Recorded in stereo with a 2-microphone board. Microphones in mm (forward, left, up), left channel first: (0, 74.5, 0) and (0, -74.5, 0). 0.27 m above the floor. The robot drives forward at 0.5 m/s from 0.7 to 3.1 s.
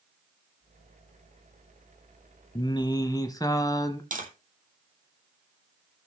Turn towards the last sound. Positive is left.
turn(degrees=-65)  # may be behind; listen again after turning